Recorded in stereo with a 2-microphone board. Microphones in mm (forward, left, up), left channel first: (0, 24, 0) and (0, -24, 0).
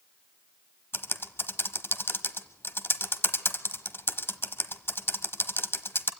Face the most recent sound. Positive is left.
turn(degrees=50)  # may be behind; listen again after turning